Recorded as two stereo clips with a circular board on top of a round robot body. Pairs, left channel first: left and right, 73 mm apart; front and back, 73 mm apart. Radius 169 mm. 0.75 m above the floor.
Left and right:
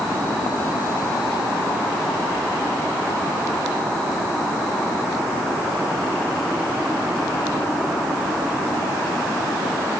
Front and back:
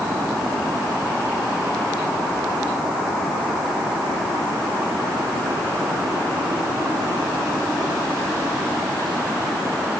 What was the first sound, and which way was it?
Only background noise.